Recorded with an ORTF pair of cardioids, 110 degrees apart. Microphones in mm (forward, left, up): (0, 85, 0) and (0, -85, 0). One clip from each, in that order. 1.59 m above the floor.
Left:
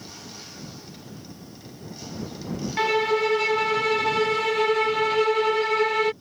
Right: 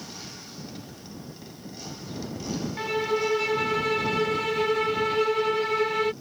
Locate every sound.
2.8 s a violin: 50° left